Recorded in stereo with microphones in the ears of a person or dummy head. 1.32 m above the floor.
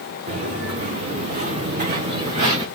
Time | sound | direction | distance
0.3 | footsteps | 50° right (ahead or behind) | 4.5 m